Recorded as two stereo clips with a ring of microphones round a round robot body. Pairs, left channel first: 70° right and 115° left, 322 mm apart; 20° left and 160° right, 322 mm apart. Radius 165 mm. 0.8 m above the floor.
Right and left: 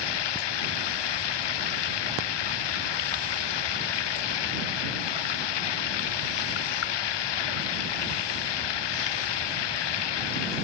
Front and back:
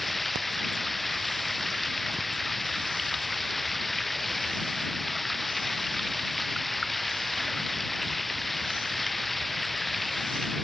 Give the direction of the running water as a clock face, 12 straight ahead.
2 o'clock.